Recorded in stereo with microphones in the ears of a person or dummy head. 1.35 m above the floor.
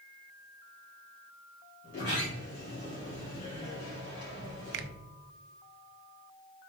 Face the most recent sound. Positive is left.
turn(degrees=-80)